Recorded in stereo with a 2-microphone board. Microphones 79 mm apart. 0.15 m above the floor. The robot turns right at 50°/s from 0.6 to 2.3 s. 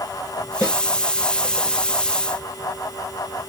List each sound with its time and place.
0.6 s a snare drum: 40° left (ahead or behind), 3.5 m; by 0.8 s 45° left (ahead or behind), 3.5 m